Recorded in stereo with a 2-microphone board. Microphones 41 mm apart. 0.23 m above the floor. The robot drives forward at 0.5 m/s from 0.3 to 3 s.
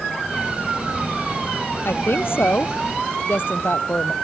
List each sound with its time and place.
1.9 s a woman speaking: 60° left (ahead or behind); by 4.1 s 55° left (ahead or behind)